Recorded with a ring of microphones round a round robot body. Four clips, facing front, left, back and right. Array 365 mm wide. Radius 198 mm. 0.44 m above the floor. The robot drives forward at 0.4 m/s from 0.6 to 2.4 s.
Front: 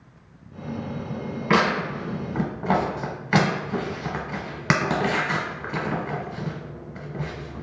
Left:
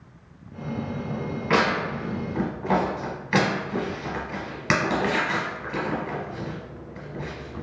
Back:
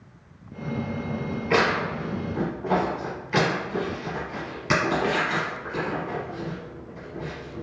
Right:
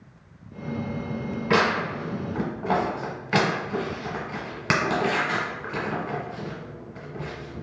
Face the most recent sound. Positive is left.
turn(degrees=-10)